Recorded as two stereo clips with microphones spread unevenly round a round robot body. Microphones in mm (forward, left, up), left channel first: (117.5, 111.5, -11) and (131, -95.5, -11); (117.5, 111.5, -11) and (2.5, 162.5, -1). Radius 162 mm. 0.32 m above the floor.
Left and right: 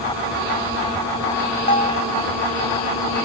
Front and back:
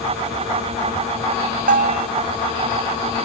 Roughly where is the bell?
Behind.